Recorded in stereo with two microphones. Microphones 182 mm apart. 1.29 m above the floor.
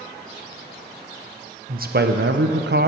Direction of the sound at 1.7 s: 50° right (ahead or behind).